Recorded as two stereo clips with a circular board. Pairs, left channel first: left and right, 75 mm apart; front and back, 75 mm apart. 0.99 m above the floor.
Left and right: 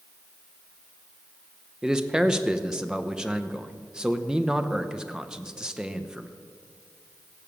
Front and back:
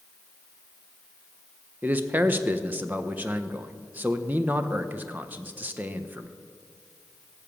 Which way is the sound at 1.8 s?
155° right.